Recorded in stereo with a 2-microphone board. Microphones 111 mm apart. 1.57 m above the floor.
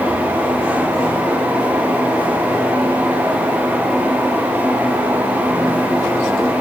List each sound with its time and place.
Only background noise.